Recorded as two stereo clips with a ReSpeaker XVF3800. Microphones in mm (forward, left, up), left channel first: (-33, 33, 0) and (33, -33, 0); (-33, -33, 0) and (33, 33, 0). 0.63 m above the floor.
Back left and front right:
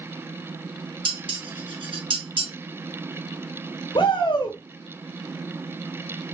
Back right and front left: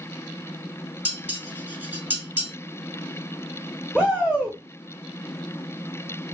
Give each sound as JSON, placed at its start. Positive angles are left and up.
{"t": 1.1, "sound": "dishes clattering", "azimuth_deg": -25, "distance_m": 3.0}
{"t": 4.0, "sound": "a shout", "azimuth_deg": 140, "distance_m": 1.3}